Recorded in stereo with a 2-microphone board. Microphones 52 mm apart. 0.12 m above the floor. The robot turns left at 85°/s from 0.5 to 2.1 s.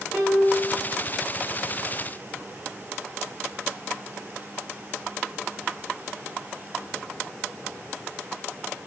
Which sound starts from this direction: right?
A piano, at 0.1 s.